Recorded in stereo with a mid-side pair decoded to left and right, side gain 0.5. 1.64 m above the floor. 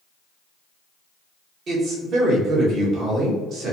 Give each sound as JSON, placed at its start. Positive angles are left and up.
{"t": 1.7, "sound": "a man speaking", "azimuth_deg": -55, "distance_m": 1.5}